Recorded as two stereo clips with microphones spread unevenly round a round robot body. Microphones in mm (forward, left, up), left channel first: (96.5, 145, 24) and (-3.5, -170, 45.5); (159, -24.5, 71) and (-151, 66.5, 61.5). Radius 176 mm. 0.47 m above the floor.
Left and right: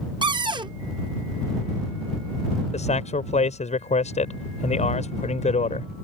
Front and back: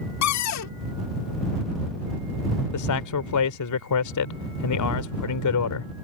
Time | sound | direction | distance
0.2 | a cupboard door | 30° right | ?
2.7 | a man speaking | 5° left | ?